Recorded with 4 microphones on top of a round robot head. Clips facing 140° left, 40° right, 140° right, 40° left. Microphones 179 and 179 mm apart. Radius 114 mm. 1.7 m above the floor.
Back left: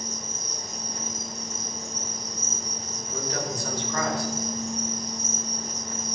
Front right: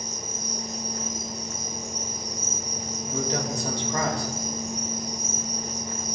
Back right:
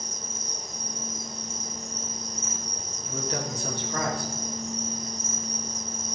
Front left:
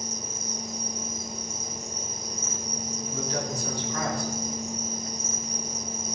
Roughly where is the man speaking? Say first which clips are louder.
Front right 3 dB, even; right.